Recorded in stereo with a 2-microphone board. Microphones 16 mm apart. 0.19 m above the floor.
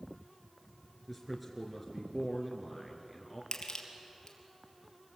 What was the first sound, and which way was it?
A man speaking, centre (ahead or behind).